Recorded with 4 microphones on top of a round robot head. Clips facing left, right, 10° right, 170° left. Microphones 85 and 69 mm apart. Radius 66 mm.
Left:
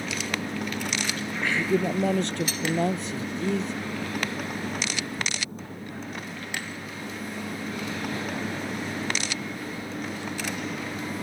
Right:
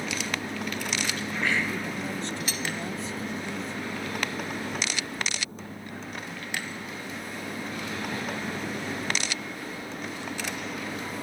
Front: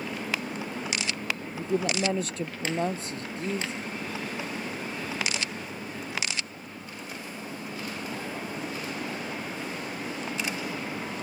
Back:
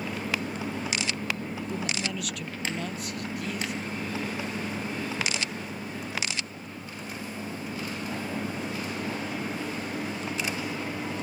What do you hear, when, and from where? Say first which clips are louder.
1.6 s a man speaking: left 7 dB, front 5 dB; 50° left; by 3.8 s 55° left